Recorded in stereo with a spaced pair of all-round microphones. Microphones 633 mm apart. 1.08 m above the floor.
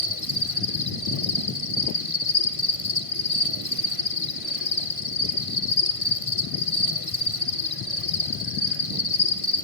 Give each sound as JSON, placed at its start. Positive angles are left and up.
{"t": 0.0, "sound": "an insect", "side_deg": 55, "distance_m": 1.3}